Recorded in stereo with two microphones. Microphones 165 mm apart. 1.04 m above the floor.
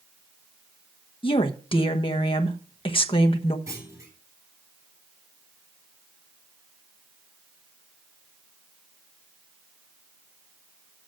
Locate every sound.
1.2 s a woman speaking: 30° left (ahead or behind), 1.2 m
3.7 s a clunk: 20° right (ahead or behind), 3.5 m